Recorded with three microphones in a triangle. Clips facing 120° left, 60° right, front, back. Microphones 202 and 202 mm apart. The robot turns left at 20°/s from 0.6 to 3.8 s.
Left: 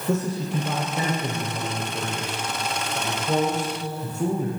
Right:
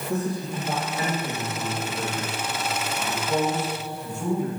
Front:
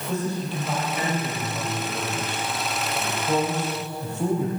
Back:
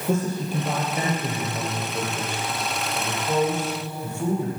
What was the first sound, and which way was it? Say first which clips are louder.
A man speaking: left 3 dB, back 3 dB; 135° left.